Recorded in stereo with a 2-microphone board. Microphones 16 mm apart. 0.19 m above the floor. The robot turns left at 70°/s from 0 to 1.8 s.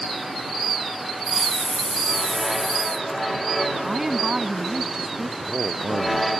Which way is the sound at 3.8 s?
30° right (ahead or behind).